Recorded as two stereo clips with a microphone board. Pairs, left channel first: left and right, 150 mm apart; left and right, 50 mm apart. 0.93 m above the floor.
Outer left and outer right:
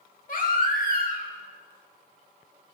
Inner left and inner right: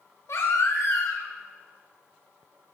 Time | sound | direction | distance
0.3 | a baby crying | 65° left (ahead or behind) | 1.2 m